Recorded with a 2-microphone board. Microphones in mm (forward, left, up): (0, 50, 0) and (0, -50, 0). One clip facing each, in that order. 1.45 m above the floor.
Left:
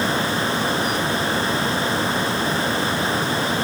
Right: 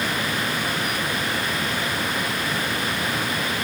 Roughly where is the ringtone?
No ringtone in this recording.